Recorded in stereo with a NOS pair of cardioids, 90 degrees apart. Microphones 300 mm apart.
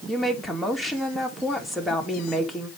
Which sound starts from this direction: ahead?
A woman speaking, at 0.1 s.